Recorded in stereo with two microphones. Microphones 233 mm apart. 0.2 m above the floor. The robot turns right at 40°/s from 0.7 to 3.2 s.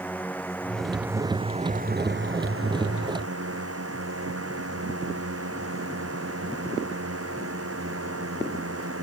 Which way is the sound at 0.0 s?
175° left.